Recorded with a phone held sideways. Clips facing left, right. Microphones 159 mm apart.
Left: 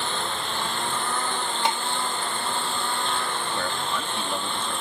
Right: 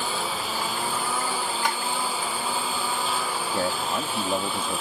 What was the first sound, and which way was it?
A lawn mower, 5° right (ahead or behind).